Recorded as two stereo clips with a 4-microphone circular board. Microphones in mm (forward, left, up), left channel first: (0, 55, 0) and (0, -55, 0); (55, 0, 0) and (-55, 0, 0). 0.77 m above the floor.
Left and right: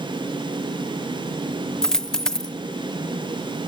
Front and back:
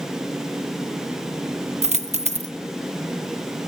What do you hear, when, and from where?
1.8 s a dropped coin: 175° left, 0.5 m